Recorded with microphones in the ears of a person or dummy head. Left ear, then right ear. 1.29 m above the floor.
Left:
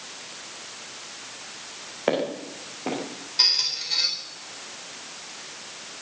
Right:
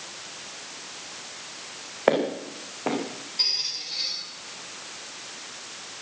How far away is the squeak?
About 4 m.